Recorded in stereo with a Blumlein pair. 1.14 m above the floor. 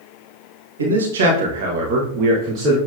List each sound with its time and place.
0.8 s a man speaking: 70° right, 1.3 m; by 2.8 s 25° right, 1.4 m